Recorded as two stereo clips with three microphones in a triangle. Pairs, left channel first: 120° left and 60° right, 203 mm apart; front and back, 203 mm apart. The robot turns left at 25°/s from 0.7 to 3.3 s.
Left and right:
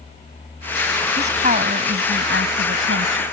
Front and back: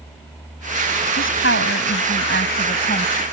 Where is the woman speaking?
Straight ahead; by 3.2 s 55° right.